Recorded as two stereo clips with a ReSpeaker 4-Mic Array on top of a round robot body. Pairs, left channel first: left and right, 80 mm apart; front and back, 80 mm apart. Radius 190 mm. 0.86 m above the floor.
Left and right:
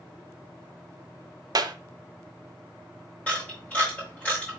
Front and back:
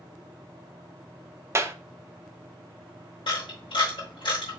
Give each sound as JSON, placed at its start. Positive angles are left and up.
{"t": 1.6, "sound": "a clap", "azimuth_deg": -125, "distance_m": 0.7}
{"t": 3.3, "sound": "a camera shutter", "azimuth_deg": 20, "distance_m": 0.6}